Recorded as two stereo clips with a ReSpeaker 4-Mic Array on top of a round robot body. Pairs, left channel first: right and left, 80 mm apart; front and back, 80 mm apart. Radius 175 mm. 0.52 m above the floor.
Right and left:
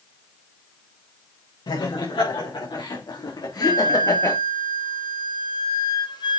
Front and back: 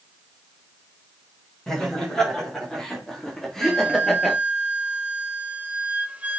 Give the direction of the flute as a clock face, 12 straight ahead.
4 o'clock.